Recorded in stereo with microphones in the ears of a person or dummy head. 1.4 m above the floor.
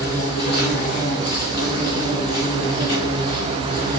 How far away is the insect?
About 1.7 m.